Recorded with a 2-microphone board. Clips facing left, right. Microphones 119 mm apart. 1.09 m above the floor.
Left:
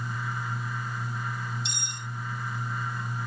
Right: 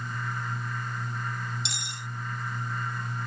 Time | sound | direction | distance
1.6 | cutlery clinking | 75° right (ahead or behind) | ?